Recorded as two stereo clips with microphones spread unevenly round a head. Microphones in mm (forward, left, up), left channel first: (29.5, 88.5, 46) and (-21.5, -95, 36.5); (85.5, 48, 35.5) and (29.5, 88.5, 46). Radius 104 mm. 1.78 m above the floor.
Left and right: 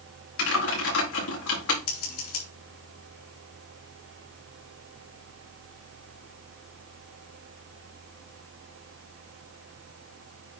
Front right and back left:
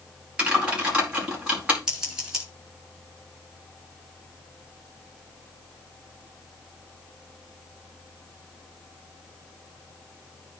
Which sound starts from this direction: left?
Typing on a keyboard, at 0.4 s.